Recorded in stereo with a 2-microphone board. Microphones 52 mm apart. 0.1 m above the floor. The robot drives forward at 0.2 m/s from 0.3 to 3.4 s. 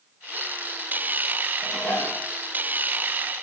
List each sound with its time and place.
1.6 s dishes clattering: 60° left (ahead or behind), 9.5 m